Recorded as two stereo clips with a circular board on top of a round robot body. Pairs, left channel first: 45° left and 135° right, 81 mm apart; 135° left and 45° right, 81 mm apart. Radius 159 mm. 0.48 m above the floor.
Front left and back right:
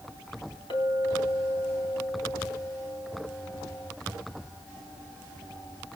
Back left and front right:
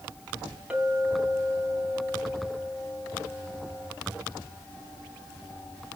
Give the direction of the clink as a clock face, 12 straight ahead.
11 o'clock.